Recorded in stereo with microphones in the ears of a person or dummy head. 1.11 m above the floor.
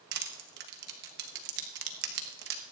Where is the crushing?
55° right (ahead or behind), 1.2 m.